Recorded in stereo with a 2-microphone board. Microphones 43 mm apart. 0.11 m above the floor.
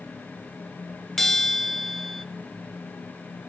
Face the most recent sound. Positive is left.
turn(degrees=5)  # may be behind; listen again after turning